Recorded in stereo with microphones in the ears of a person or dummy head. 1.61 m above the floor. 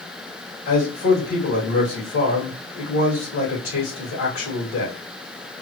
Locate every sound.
0.7 s a man speaking: 55° left (ahead or behind), 1.9 m